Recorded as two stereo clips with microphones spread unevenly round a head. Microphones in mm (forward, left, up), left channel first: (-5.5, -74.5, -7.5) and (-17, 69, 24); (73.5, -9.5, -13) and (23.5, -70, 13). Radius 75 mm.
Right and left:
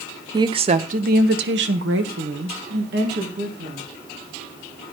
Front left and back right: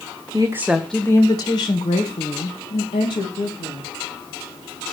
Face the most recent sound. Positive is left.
turn(degrees=65)